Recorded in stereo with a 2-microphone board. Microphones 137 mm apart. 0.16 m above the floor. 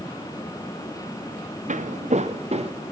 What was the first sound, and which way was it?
Footsteps, 70° right (ahead or behind).